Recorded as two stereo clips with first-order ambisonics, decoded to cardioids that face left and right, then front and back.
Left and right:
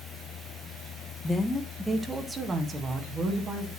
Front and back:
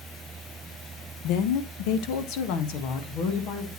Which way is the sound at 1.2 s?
15° left.